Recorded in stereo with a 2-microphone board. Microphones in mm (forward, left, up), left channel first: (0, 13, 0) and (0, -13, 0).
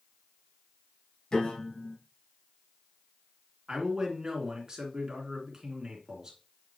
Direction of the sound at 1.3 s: 35° left (ahead or behind).